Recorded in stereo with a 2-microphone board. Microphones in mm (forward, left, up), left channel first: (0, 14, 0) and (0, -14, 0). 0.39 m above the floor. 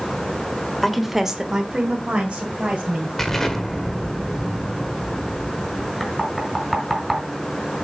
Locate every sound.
0.8 s a woman speaking: 5° left (ahead or behind), 1.2 m; by 3.1 s 45° right (ahead or behind), 2.5 m
3.2 s an explosion: 10° left (ahead or behind), 1.4 m
6.0 s knocking: 5° left (ahead or behind), 3 m